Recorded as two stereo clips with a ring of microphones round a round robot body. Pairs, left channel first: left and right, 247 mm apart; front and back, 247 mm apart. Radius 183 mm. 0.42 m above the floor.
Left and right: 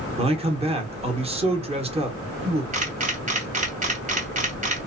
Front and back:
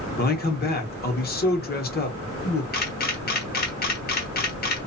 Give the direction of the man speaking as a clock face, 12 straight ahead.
1 o'clock.